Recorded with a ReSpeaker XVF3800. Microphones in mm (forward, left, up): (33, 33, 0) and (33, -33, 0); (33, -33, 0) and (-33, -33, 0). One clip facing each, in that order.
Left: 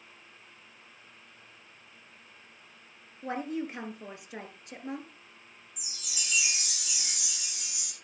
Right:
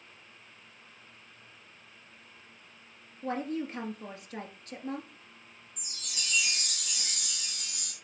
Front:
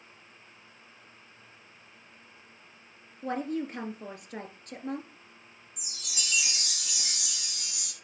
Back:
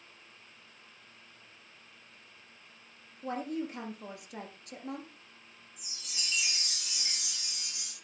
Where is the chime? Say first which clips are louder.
Right 1 dB, front 3 dB; 5° left, 2.5 m.